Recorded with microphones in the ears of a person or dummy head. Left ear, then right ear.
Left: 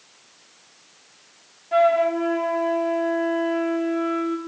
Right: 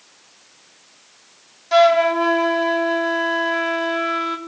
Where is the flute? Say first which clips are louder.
Right 4 dB; 40° right (ahead or behind), 3 m.